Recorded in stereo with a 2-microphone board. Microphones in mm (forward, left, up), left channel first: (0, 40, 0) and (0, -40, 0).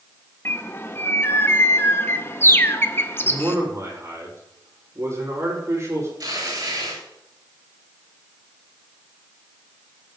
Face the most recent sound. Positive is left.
turn(degrees=-55)  # may be behind; listen again after turning